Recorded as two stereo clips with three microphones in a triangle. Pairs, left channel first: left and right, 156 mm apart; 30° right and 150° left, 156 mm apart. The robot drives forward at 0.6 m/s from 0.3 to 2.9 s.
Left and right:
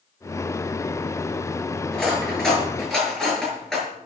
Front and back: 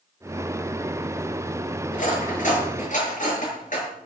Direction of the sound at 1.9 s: 5° left.